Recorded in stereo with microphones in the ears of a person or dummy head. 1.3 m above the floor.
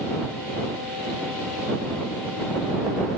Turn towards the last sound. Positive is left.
No sound to turn to.